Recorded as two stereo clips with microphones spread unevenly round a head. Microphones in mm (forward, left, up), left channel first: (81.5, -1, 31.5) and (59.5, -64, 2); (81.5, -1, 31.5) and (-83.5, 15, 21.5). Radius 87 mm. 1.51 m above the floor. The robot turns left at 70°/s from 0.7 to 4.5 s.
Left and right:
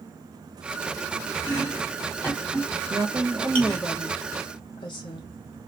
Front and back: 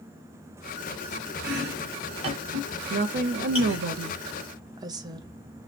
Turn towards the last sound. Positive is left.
turn(degrees=110)